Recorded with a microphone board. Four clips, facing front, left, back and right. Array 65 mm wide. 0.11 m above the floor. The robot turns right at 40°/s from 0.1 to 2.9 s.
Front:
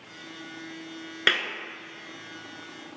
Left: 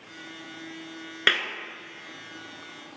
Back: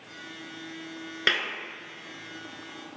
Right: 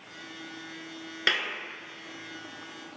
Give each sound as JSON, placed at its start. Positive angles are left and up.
{"t": 1.3, "sound": "a clap", "azimuth_deg": 70, "distance_m": 0.9}